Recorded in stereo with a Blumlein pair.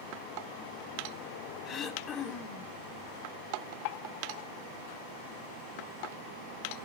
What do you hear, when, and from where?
1.6 s throat clearing: 25° left, 1.6 m